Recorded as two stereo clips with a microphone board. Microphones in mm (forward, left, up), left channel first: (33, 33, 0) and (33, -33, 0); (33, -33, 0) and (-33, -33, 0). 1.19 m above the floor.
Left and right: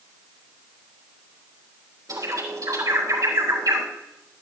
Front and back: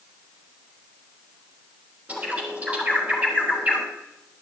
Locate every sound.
2.1 s a bird: 110° right, 4 m